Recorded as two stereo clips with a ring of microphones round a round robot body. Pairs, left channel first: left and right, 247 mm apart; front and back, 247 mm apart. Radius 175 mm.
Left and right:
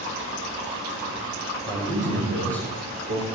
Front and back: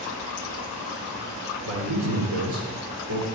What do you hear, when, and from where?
1.6 s a man speaking: 160° right, 3 m; by 3.2 s 140° right, 1.9 m